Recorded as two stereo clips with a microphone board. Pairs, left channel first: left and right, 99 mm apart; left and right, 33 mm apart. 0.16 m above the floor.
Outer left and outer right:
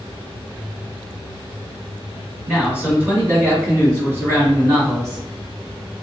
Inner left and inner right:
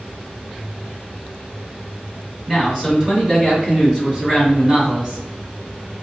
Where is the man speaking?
15° right (ahead or behind), 1.8 m; by 5.2 s 30° right (ahead or behind), 1.9 m.